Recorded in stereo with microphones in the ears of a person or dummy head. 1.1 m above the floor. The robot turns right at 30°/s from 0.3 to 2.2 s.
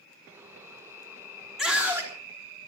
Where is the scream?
Centre (ahead or behind), 3 m; by 2.1 s 15° right (ahead or behind), 3 m.